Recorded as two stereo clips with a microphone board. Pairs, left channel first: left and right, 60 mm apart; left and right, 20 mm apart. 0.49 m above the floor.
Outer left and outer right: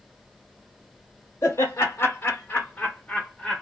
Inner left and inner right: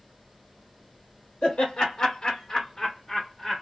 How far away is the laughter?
About 1.2 m.